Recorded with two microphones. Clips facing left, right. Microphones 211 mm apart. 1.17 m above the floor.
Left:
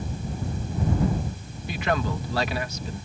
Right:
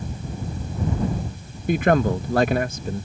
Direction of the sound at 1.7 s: 50° right (ahead or behind).